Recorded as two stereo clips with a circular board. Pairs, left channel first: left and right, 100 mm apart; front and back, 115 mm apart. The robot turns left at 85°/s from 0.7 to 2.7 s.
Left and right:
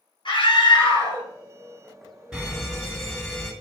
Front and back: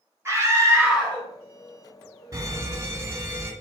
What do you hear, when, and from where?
0.2 s a scream: 115° left, 3 m; by 1.2 s 70° left, 3 m
2.3 s a fire alarm: 170° right, 2 m; by 3.5 s 160° left, 2 m